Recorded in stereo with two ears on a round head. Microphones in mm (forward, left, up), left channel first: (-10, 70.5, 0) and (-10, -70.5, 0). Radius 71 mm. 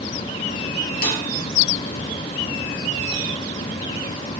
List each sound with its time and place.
1.0 s a snare drum: 70° left (ahead or behind), 5.5 m